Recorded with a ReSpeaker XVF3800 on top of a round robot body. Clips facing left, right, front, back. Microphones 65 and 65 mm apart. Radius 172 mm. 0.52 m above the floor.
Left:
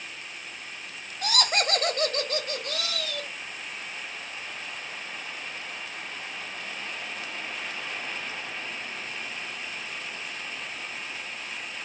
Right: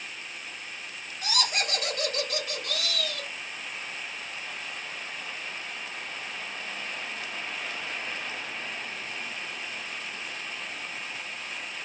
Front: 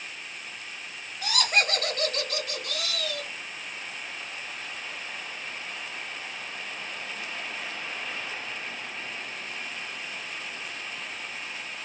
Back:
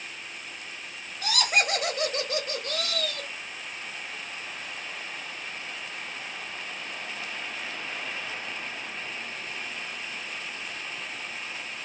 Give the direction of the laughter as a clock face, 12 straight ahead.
9 o'clock.